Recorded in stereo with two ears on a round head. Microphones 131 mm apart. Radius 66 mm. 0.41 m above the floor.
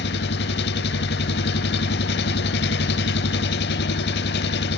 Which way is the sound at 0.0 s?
75° left (ahead or behind).